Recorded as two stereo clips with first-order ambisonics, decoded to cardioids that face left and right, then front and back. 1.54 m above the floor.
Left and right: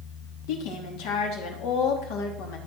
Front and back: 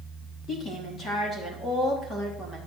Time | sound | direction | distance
0.5 | a woman speaking | 70° left | 3.5 m